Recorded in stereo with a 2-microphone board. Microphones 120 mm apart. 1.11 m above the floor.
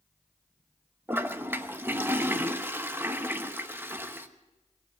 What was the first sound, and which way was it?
A toilet flushing, 20° right (ahead or behind).